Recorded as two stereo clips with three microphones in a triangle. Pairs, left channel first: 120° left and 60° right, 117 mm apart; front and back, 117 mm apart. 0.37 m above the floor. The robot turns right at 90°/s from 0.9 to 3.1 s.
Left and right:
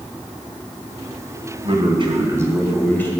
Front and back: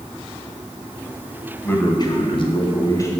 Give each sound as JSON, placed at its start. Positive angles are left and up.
{"t": 1.6, "sound": "a man speaking", "azimuth_deg": -70, "distance_m": 1.8}